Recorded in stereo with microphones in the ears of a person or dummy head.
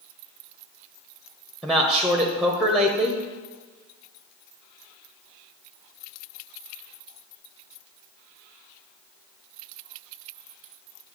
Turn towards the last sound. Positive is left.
turn(degrees=0)  # may be behind; listen again after turning